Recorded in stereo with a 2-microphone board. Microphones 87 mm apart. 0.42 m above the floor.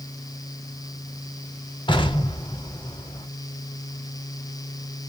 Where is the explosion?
70° left (ahead or behind), 1.0 m.